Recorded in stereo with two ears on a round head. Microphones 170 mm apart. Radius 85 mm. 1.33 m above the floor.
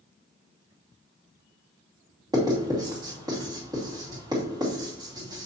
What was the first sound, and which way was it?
Writing, 20° right (ahead or behind).